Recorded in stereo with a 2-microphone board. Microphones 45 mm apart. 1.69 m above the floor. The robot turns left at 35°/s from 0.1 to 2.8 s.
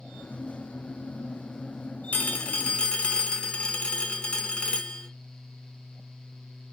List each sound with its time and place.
2.1 s a phone ringing: 35° left (ahead or behind), 0.7 m; by 5.1 s 20° left (ahead or behind), 0.7 m